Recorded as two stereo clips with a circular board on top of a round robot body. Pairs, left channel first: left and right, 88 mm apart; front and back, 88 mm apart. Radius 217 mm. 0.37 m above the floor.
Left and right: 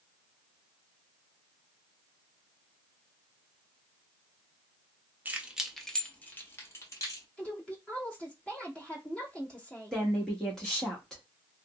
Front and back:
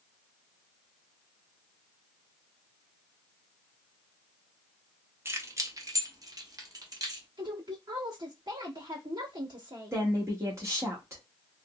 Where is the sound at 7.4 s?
170° left, 1.6 m.